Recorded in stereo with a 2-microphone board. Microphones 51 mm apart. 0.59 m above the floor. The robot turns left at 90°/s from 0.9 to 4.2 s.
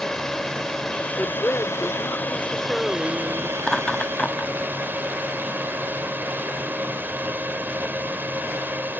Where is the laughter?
5° left (ahead or behind); by 4.5 s 25° left (ahead or behind).